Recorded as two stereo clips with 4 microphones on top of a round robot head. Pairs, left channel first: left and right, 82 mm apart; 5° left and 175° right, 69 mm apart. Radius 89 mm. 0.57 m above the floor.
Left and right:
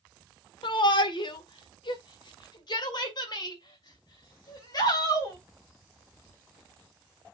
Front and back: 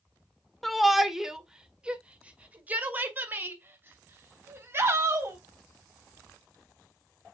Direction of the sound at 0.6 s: 95° left.